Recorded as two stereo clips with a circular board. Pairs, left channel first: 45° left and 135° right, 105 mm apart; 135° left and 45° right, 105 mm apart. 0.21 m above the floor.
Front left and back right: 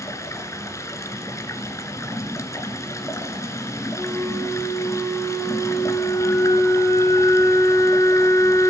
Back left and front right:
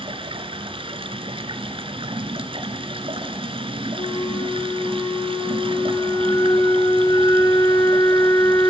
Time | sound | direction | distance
0.0 | running water | 15° right | 2.0 m
4.0 | a flute | 100° left | 3 m